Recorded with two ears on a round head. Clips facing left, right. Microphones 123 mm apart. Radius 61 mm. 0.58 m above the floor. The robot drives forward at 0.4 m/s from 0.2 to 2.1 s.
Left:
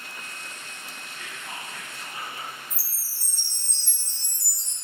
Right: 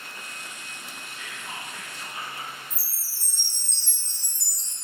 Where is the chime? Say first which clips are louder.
Even; 5° right (ahead or behind), 1.4 m.